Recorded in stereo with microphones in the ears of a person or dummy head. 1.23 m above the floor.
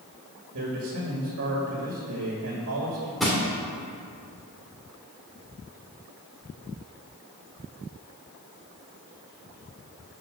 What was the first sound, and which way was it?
A man speaking, 60° right (ahead or behind).